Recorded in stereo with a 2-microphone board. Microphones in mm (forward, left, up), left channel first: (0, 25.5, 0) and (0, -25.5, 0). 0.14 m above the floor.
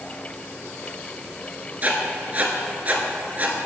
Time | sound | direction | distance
1.8 | writing | 30° right (ahead or behind) | 0.7 m